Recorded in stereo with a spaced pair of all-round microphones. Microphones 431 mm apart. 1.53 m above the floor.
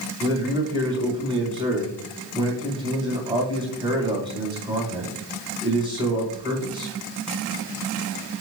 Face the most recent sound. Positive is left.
turn(degrees=-10)  # may be behind; listen again after turning